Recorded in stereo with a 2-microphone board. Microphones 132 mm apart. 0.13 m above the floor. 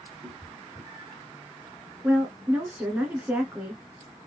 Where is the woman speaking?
15° right (ahead or behind), 1.2 m.